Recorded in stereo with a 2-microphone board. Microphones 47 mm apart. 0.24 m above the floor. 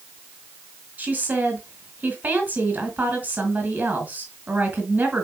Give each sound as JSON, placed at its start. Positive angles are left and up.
{"t": 1.0, "sound": "a woman speaking", "side_deg": -35, "distance_m": 3.0}